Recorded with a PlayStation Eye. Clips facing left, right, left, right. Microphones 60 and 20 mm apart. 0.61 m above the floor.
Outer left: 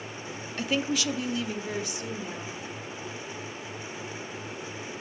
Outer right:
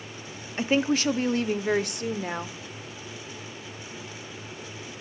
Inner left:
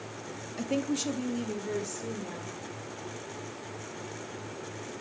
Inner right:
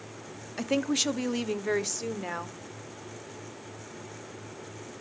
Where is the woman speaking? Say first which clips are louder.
Outer right 5 dB, inner right 3 dB; 25° right (ahead or behind), 0.6 m; by 2.6 s 60° right (ahead or behind), 1.4 m.